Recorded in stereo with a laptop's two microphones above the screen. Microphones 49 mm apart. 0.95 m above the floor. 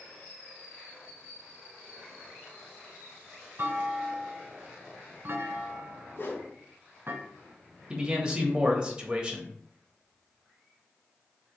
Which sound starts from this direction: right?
A clunk, at 3.6 s.